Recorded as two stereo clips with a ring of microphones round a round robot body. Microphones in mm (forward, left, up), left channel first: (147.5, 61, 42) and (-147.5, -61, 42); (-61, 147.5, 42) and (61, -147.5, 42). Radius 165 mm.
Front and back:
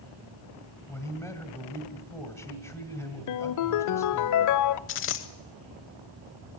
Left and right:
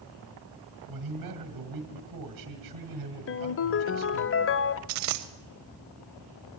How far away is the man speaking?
About 1.9 m.